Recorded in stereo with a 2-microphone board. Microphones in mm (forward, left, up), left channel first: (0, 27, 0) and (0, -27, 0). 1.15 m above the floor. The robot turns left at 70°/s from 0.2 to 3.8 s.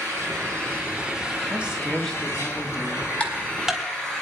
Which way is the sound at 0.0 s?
95° right.